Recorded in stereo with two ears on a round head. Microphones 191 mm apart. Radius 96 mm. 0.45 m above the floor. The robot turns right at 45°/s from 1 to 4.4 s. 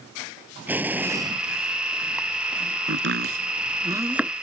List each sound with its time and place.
0.7 s an explosion: 10° right (ahead or behind); by 1.4 s 30° right (ahead or behind)
2.9 s chopping: 65° right (ahead or behind); by 4.3 s centre (ahead or behind)